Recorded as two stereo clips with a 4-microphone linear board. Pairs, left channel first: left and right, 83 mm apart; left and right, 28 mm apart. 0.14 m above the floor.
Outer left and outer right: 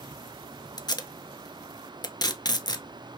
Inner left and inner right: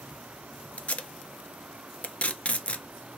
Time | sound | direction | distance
0.8 | tape being pulled | 50° left (ahead or behind) | 0.5 m